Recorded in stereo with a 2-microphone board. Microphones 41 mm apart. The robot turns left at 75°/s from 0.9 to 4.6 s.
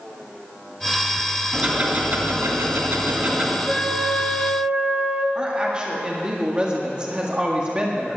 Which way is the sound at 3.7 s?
15° left.